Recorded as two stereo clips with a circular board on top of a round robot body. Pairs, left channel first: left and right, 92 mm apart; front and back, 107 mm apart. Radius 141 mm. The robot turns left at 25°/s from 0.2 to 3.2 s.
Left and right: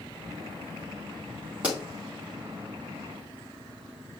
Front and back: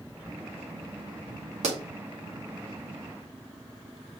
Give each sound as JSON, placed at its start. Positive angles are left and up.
{"t": 1.6, "sound": "a pop", "azimuth_deg": -170, "distance_m": 1.8}